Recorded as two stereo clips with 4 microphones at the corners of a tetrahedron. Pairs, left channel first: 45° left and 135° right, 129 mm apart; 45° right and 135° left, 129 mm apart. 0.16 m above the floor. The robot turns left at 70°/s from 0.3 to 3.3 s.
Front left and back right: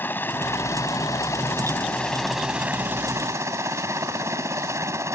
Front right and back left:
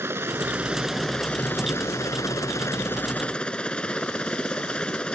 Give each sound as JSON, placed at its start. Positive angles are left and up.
{"t": 0.0, "sound": "a helicopter", "azimuth_deg": 95}